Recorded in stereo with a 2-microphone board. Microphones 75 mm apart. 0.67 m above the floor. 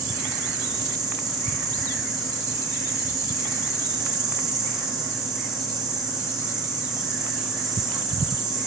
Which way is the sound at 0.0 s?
10° right (ahead or behind).